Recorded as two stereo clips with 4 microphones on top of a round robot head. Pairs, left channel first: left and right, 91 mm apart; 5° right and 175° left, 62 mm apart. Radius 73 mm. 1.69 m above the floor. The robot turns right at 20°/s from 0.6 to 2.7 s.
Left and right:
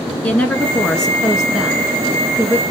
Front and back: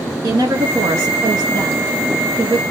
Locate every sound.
0.2 s a woman speaking: 170° left, 1.5 m; by 2.6 s 150° right, 1.5 m